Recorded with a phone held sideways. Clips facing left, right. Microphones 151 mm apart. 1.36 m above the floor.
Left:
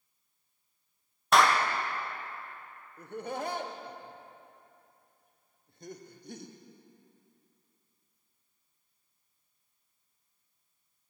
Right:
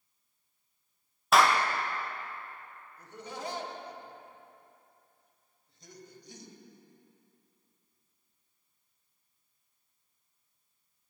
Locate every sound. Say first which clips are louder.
1.3 s a clap: even; centre (ahead or behind), 0.6 m
3.0 s laughter: left 6 dB; 55° left (ahead or behind), 0.8 m